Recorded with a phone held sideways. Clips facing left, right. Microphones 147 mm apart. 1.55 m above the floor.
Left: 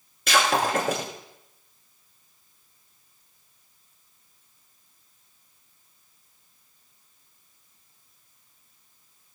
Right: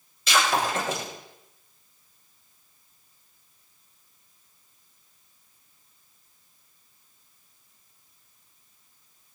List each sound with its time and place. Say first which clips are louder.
0.3 s breaking glass: left 2 dB; 60° left (ahead or behind), 8 m